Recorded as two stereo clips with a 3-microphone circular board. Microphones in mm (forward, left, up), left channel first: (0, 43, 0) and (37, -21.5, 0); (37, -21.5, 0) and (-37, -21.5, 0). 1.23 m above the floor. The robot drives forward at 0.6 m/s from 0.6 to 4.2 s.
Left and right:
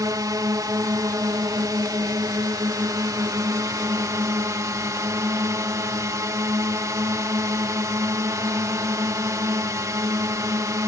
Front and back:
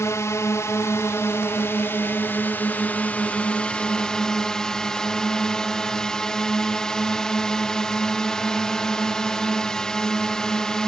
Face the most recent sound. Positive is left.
turn(degrees=-80)